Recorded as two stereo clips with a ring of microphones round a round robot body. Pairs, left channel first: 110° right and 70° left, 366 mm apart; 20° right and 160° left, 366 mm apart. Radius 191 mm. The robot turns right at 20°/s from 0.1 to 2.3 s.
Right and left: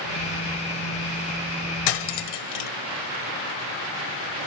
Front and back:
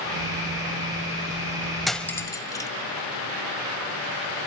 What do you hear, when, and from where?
1.9 s cutlery clinking: 115° right, 1.0 m; by 2.7 s 105° right, 1.0 m